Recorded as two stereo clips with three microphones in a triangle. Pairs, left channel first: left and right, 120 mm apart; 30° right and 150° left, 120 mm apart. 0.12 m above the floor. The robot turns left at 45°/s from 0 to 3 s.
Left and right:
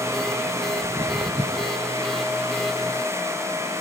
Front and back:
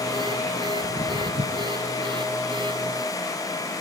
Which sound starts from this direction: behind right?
Footsteps, at 0.8 s.